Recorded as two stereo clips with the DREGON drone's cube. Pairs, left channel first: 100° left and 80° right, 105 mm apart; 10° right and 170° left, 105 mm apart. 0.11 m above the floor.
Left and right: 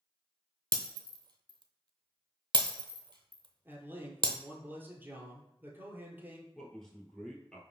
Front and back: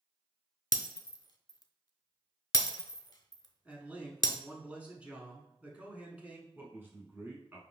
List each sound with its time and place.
0.7 s breaking glass: 55° right, 0.5 m
3.6 s a man speaking: 125° right, 1.2 m
6.5 s a man speaking: 170° left, 1.1 m